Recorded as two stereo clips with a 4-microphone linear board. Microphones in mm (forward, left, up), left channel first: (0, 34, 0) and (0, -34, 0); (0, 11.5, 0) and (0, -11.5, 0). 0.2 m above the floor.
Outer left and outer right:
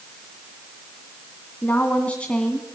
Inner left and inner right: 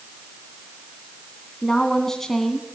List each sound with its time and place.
1.6 s a woman speaking: 25° left (ahead or behind), 2 m; by 2.6 s 10° left (ahead or behind), 1.9 m